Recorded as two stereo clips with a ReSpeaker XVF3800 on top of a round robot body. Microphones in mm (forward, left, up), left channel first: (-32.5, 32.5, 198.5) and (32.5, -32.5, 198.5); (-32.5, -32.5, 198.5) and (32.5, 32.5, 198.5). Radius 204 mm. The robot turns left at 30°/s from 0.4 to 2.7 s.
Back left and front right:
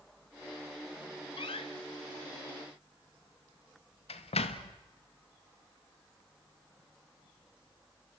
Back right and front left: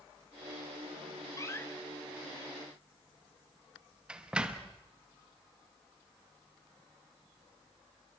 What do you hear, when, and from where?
1.4 s a door slam: 165° left, 0.8 m; by 4.7 s 125° left, 0.8 m